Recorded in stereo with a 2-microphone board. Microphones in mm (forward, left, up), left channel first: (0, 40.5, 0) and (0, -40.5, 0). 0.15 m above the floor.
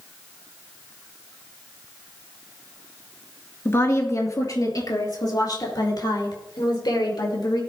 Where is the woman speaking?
35° left (ahead or behind), 2 m; by 7.6 s 70° left (ahead or behind), 5.5 m.